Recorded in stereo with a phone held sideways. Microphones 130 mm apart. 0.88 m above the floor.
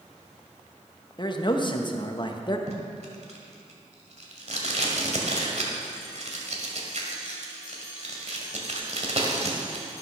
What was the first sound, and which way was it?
A man speaking, 35° left (ahead or behind).